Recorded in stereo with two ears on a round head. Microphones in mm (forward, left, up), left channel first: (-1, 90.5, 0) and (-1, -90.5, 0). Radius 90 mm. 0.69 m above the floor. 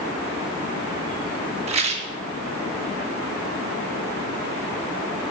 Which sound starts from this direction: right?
A rattle, at 1.7 s.